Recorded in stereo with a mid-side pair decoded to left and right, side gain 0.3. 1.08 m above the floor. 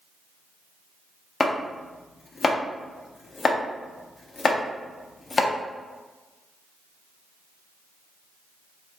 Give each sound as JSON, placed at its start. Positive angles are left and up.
{"t": 1.4, "sound": "chopping", "azimuth_deg": 50, "distance_m": 0.6}